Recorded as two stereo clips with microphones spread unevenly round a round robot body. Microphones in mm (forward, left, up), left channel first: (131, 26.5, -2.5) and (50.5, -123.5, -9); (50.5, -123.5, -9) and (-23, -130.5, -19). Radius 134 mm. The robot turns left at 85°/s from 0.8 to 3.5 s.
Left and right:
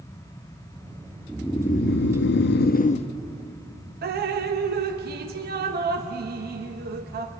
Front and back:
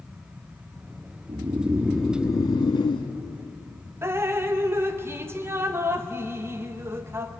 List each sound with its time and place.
1.3 s snoring: 150° left, 0.5 m; by 3.1 s straight ahead, 0.5 m
4.0 s dripping: 125° right, 0.7 m